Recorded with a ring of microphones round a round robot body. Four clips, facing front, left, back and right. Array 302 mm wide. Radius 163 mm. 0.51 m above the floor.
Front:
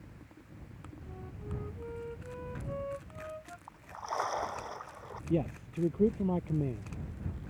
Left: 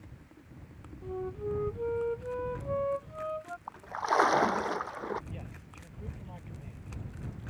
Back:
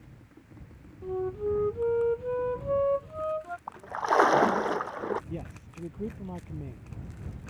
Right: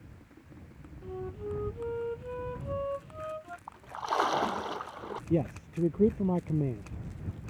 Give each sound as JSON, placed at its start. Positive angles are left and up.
{"t": 1.0, "sound": "a flute", "azimuth_deg": 170}
{"t": 3.7, "sound": "a splash", "azimuth_deg": 170}
{"t": 5.3, "sound": "a man speaking", "azimuth_deg": -65}